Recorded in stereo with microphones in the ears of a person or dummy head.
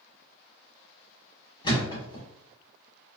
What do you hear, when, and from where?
1.6 s a thud: 25° left (ahead or behind), 1.5 m